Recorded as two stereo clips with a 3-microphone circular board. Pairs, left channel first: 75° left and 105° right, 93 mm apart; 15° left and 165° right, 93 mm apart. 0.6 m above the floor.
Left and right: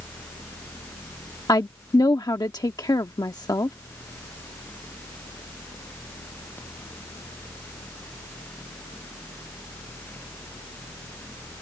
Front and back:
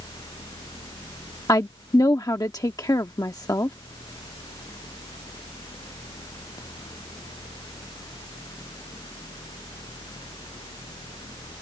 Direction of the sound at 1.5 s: 50° left.